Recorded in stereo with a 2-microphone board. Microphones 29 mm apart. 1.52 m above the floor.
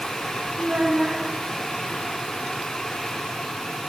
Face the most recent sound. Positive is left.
turn(degrees=-35)  # may be behind; listen again after turning